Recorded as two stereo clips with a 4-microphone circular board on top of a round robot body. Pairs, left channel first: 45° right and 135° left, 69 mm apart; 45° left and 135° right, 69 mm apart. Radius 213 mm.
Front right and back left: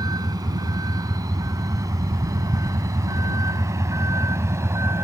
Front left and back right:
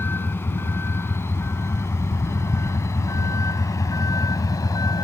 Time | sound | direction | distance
0.0 | a vehicle | 105° left | ?